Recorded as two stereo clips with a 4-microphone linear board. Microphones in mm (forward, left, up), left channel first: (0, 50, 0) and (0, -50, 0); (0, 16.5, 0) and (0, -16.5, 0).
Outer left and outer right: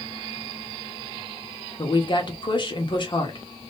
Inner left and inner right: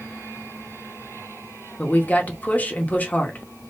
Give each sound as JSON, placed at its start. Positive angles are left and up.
{"t": 1.8, "sound": "a woman speaking", "side_deg": 50, "distance_m": 1.1}